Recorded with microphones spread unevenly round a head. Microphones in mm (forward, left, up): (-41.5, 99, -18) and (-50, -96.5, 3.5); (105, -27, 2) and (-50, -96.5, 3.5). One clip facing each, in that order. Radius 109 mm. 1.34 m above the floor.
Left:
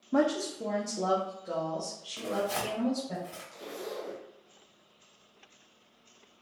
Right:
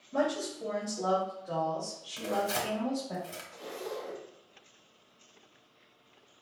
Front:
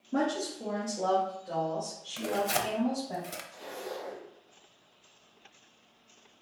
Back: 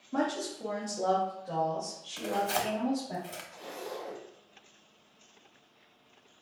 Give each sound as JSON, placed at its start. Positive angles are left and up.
{"t": 0.1, "sound": "a woman speaking", "azimuth_deg": 90, "distance_m": 0.7}
{"t": 2.2, "sound": "tearing paper", "azimuth_deg": -20, "distance_m": 0.8}
{"t": 3.5, "sound": "a zipper", "azimuth_deg": 80, "distance_m": 1.7}